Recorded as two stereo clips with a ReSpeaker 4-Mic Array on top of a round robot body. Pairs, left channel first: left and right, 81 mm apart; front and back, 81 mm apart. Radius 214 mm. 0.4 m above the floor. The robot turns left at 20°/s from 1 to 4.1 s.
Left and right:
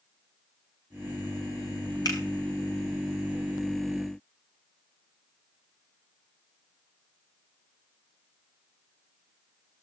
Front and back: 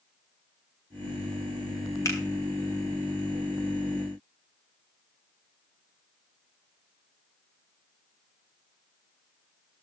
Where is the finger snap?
50° left, 3.5 m.